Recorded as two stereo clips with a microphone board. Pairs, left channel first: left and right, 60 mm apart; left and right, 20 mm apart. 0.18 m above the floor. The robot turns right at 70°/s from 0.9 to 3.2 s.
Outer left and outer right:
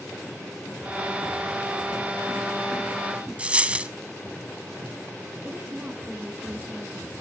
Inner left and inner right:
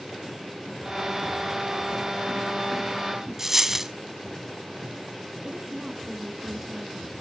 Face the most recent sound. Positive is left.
turn(degrees=-30)  # may be behind; listen again after turning